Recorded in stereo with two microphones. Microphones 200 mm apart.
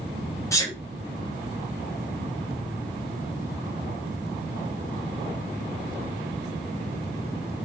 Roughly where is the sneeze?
Centre.